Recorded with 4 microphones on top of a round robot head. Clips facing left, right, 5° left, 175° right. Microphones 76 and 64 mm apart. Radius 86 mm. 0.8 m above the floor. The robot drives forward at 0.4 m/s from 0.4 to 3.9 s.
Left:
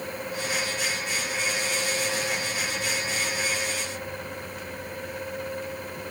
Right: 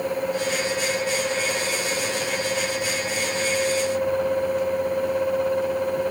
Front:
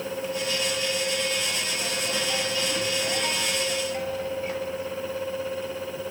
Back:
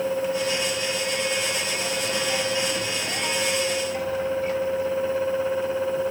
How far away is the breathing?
No breathing in this recording.